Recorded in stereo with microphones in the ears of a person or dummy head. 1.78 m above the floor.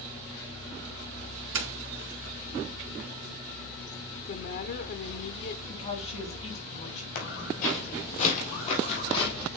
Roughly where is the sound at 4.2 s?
Left.